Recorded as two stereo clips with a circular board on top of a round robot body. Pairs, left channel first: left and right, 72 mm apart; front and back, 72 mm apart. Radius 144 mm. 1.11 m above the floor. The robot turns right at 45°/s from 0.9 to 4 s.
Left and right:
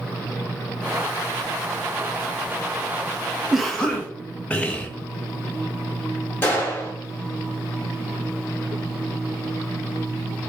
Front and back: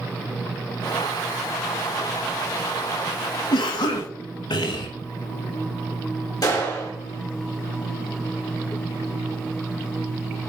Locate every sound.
3.5 s a cough: 5° right, 0.9 m; by 4.9 s 15° left, 0.9 m
6.4 s a gunshot: 30° left, 3 m